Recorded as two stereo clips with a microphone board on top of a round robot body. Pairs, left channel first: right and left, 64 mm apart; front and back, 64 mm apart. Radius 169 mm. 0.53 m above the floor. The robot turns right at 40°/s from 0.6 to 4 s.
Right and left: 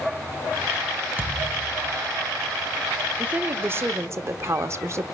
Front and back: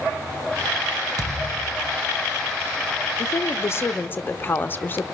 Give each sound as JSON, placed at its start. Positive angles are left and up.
{"t": 1.2, "sound": "a thud", "azimuth_deg": 150, "distance_m": 0.9}
{"t": 3.2, "sound": "a woman speaking", "azimuth_deg": 25, "distance_m": 1.0}